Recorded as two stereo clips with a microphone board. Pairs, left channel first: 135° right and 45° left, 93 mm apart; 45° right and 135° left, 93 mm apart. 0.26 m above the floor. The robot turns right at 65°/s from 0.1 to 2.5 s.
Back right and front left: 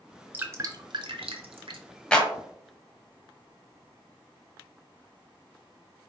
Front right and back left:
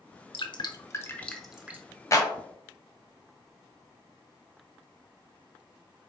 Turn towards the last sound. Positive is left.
turn(degrees=-35)